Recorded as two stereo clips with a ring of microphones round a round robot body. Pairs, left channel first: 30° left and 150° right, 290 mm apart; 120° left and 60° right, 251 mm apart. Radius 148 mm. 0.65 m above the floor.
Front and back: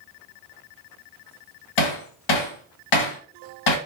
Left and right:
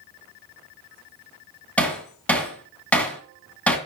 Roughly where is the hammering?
Ahead left.